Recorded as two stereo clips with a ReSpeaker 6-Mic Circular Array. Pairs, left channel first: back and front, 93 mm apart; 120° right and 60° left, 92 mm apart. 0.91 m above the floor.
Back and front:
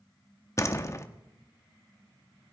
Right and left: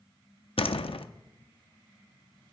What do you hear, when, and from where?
0.6 s a door slam: 125° right, 0.7 m